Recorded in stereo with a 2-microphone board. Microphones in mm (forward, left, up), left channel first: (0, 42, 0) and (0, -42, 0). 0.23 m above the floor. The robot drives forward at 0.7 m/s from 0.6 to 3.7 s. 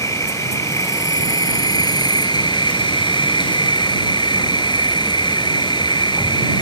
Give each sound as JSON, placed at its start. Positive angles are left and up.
{"t": 0.0, "sound": "an insect", "side_deg": 40}